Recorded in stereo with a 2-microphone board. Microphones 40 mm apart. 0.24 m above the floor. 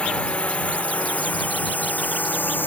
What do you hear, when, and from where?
0.0 s a drone: 30° left (ahead or behind); by 2.7 s 55° left (ahead or behind)